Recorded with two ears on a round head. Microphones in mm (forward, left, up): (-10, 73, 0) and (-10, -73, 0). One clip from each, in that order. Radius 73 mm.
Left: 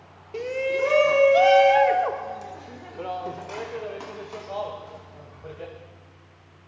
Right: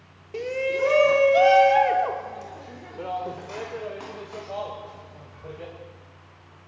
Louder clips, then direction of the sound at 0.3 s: Even; 5° right (ahead or behind).